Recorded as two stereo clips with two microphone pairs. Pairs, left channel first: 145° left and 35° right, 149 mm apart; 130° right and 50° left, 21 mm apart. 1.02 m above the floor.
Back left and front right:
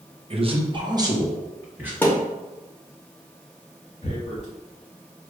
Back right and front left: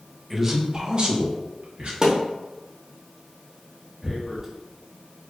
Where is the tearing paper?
120° left, 1.1 m.